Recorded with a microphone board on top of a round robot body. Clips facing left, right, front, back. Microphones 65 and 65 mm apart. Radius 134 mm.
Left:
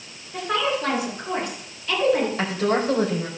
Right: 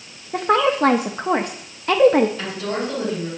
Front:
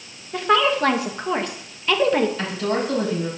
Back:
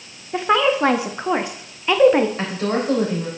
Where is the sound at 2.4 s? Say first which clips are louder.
Left 3 dB, back 1 dB; 125° left, 3.5 m.